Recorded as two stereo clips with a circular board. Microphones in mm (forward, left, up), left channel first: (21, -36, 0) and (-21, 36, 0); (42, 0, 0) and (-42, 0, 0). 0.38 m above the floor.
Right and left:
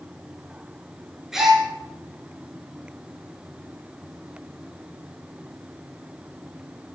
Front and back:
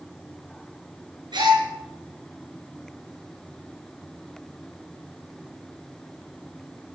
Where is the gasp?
155° right, 6.5 m.